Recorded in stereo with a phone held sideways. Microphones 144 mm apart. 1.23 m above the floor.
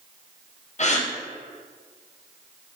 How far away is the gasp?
About 0.7 m.